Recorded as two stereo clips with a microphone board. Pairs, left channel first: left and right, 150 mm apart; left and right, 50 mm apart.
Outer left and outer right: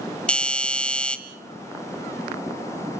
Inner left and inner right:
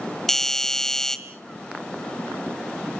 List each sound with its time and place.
0.3 s a doorbell: 5° left (ahead or behind), 1.6 m